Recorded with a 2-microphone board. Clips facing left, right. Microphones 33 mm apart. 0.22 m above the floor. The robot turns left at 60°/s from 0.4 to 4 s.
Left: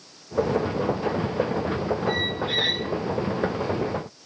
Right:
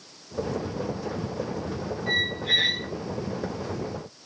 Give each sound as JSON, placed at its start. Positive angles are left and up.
{"t": 2.1, "sound": "a squeak", "azimuth_deg": -65, "distance_m": 9.0}